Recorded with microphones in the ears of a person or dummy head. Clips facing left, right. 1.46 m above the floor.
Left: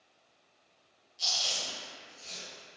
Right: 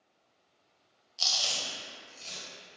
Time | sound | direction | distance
1.2 | chewing | 65° right (ahead or behind) | 0.8 m